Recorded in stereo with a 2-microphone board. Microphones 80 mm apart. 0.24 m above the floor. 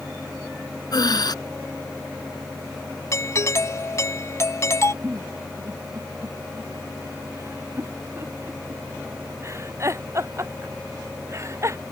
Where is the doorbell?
40° left (ahead or behind).